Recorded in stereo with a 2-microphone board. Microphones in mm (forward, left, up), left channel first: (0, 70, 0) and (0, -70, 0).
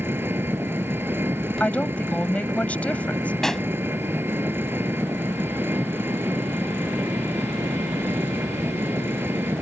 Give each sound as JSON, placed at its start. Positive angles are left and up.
{"t": 0.0, "sound": "an engine running", "side_deg": -15}
{"t": 1.6, "sound": "a woman speaking", "side_deg": 10}
{"t": 3.4, "sound": "a pop", "side_deg": 5}